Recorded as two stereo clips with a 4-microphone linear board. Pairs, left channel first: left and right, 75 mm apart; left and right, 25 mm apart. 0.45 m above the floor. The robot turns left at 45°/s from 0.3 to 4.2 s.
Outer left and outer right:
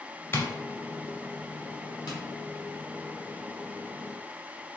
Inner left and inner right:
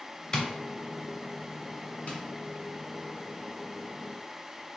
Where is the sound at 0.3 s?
30° left (ahead or behind), 1.2 m.